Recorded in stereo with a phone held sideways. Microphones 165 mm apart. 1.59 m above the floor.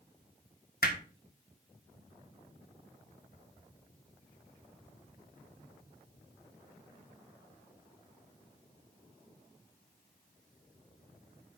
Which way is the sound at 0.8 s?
70° left (ahead or behind).